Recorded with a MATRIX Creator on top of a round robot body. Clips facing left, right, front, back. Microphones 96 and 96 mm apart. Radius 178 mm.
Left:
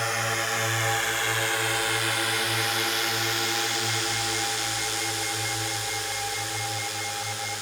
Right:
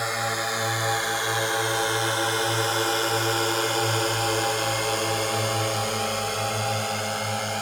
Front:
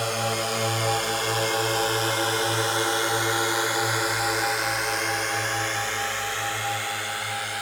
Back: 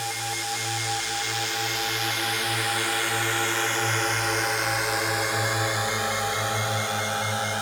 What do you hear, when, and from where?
0.0 s a drone: 10° right; by 7.6 s 120° right